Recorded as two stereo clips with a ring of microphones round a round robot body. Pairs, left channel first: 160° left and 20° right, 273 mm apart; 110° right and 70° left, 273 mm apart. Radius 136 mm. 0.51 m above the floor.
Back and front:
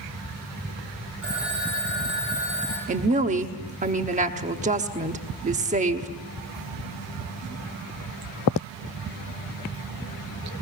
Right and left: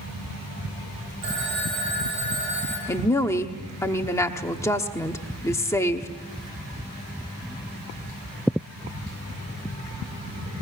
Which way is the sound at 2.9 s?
45° right.